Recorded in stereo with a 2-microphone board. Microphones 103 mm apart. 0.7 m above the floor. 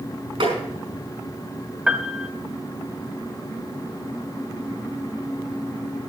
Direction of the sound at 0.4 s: 65° right (ahead or behind).